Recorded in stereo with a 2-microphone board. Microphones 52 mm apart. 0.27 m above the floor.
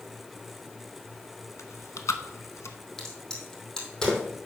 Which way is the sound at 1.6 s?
80° left.